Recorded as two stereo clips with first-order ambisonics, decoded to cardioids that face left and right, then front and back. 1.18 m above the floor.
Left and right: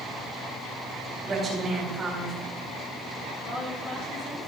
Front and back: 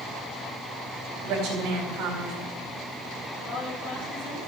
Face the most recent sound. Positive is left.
turn(degrees=40)